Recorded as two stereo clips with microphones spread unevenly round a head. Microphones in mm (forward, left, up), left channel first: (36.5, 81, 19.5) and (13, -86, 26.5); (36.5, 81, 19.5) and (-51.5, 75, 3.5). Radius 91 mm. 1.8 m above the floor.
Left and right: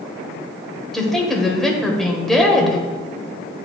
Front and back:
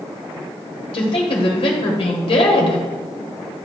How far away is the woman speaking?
About 1.5 m.